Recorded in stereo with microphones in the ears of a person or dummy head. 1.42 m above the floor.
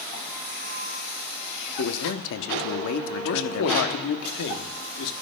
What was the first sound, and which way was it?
A man speaking, 70° left (ahead or behind).